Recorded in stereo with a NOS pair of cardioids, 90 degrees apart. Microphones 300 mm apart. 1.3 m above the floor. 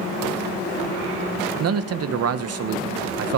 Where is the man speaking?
60° right, 1.6 m.